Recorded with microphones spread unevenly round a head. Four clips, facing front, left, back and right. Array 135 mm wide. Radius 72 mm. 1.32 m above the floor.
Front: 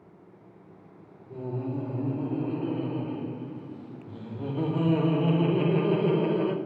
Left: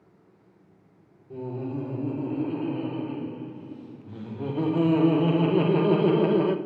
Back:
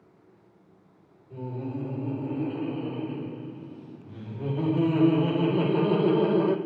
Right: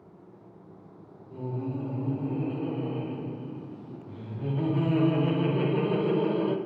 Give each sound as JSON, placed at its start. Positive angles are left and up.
{"t": 1.3, "sound": "laughter", "azimuth_deg": 60, "distance_m": 3.5}